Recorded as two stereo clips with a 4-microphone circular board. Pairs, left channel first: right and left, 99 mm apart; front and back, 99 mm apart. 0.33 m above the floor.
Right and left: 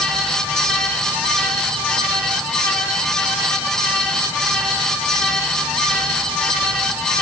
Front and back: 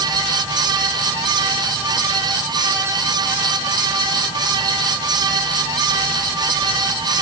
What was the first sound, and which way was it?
Only background noise.